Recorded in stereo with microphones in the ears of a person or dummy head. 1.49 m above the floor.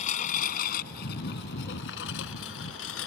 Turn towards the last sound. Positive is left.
turn(degrees=80)